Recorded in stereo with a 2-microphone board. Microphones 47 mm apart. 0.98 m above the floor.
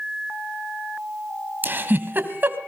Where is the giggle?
40° right (ahead or behind), 1.8 m.